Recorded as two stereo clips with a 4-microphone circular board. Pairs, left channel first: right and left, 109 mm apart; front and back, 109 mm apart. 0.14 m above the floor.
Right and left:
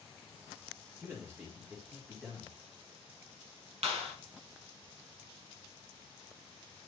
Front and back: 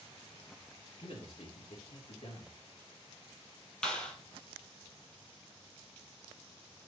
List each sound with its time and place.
1.0 s a man speaking: 25° left, 3.5 m
3.8 s a clap: 80° left, 3 m